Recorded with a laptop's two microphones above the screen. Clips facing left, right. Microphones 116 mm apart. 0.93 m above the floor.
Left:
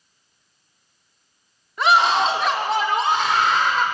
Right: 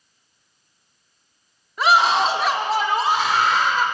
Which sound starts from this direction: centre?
A scream, at 1.8 s.